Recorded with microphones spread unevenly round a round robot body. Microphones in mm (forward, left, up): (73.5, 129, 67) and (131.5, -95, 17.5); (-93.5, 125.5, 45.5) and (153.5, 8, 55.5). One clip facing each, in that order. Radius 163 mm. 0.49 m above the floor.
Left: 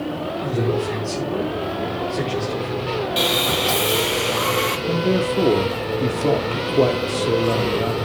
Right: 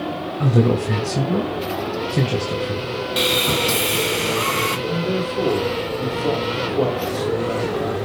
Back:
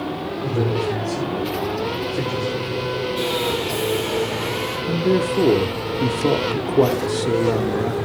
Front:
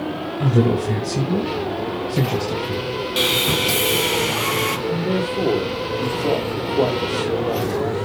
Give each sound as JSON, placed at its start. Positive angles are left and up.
{"t": 0.4, "sound": "a man speaking", "azimuth_deg": -65, "distance_m": 2.0}
{"t": 3.2, "sound": "sawing", "azimuth_deg": -20, "distance_m": 2.0}
{"t": 4.9, "sound": "a man speaking", "azimuth_deg": 165, "distance_m": 1.6}